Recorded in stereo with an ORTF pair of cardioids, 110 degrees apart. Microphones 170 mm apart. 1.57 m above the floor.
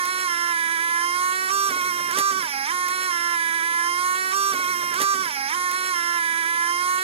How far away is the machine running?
About 0.8 m.